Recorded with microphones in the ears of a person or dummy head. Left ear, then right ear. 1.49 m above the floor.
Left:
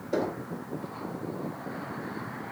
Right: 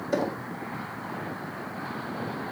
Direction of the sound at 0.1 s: 60° right (ahead or behind).